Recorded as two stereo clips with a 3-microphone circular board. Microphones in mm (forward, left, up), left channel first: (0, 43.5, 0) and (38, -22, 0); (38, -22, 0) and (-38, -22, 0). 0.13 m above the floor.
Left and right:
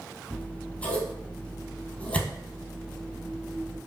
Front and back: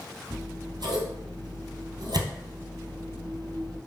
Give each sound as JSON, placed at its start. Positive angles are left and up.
{"t": 0.3, "sound": "scissors", "azimuth_deg": -170, "distance_m": 1.4}